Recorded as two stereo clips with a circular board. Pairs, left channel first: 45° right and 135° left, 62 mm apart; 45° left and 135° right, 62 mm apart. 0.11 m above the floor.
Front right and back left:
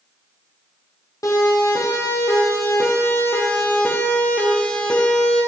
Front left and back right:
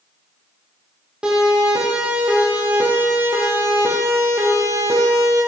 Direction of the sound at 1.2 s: 60° right.